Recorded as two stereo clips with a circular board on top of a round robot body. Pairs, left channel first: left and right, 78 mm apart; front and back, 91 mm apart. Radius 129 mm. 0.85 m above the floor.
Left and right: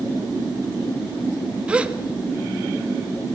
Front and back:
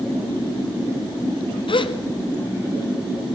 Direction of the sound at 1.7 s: 15° right.